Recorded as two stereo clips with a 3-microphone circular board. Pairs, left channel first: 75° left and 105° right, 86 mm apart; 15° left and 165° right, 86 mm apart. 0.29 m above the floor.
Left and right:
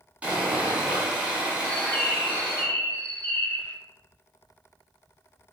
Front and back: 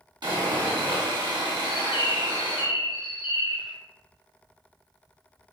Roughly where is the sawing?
Behind.